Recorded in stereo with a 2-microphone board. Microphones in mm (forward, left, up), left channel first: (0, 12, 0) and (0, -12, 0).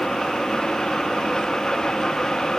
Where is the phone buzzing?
No phone buzzing in this recording.